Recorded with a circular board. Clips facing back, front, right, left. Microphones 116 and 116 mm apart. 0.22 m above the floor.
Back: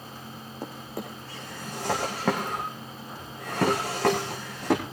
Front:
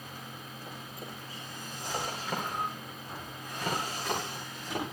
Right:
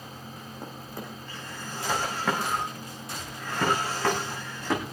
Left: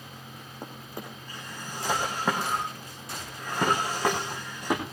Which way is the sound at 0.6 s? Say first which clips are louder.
Back 10 dB, even; 165° left.